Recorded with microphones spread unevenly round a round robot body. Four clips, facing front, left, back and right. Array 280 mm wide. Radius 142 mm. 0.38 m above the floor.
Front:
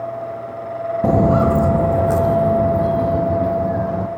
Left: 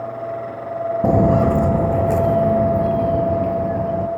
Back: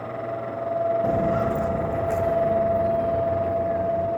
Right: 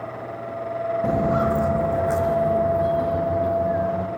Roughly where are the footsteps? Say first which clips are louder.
Left 7 dB, front 7 dB; ahead left.